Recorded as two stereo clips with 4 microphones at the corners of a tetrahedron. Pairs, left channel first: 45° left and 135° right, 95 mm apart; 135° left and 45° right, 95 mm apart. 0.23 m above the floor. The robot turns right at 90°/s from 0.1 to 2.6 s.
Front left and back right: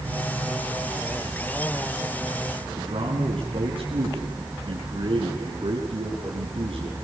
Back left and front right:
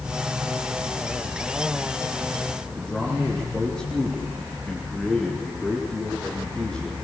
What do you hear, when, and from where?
2.8 s a man speaking: 140° right, 4 m